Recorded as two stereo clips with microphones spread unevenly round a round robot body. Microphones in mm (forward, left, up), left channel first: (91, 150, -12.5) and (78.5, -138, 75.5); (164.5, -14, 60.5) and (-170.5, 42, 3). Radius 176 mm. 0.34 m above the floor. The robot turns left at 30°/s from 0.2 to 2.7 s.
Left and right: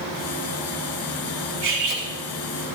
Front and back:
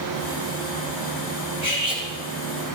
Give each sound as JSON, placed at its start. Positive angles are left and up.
{"t": 1.6, "sound": "cutlery clinking", "azimuth_deg": -105, "distance_m": 5.5}